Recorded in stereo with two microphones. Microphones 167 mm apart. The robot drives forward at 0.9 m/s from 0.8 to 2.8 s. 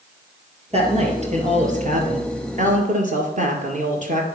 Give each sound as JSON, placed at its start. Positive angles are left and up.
{"t": 0.7, "sound": "a woman speaking", "side_deg": -40, "distance_m": 2.5}